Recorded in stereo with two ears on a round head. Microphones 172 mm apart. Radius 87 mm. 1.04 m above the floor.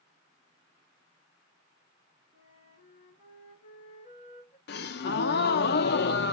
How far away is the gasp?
About 0.6 m.